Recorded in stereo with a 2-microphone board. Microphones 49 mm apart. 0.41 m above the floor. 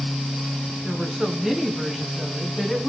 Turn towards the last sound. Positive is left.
turn(degrees=0)  # may be behind; listen again after turning